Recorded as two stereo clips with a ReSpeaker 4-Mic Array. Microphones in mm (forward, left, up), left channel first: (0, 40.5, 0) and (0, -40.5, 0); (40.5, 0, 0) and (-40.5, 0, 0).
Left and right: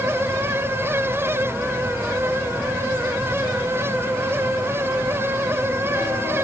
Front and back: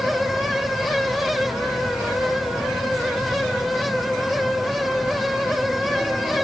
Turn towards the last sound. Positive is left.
No sound to turn to.